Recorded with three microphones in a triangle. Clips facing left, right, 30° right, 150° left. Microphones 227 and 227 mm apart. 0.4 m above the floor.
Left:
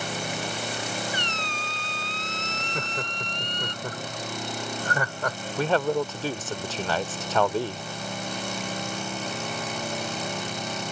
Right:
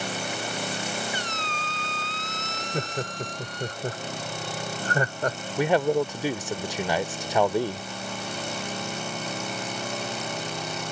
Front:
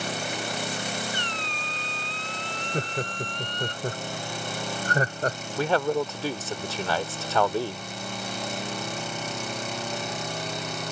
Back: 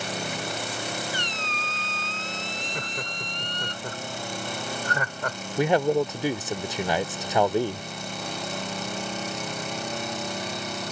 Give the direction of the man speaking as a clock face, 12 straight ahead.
5 o'clock.